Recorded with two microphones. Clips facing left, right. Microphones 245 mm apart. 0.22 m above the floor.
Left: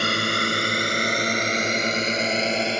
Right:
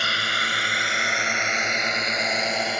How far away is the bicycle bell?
No bicycle bell in this recording.